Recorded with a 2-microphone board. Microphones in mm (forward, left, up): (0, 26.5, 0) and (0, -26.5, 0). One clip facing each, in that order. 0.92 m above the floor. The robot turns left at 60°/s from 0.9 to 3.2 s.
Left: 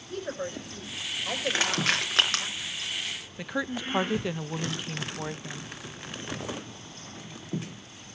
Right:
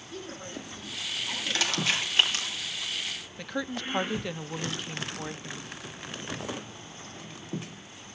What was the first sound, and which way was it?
A woman speaking, 45° left (ahead or behind).